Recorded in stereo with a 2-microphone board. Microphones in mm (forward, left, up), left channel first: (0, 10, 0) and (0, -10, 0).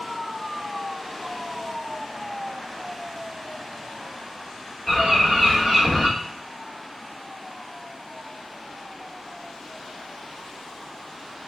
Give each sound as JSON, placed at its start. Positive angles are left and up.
{"t": 4.9, "sound": "a bird", "side_deg": 50, "distance_m": 1.6}